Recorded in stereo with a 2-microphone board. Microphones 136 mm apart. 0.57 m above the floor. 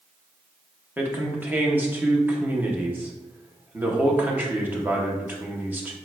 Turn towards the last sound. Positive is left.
turn(degrees=-15)  # may be behind; listen again after turning